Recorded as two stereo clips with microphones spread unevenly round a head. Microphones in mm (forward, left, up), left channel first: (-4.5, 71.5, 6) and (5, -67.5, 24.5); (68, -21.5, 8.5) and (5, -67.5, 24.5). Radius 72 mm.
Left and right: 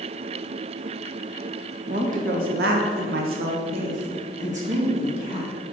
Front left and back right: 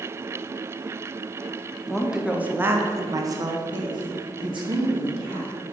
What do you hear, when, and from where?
1.9 s a woman speaking: 50° right, 1.2 m; by 5.5 s 135° right, 2 m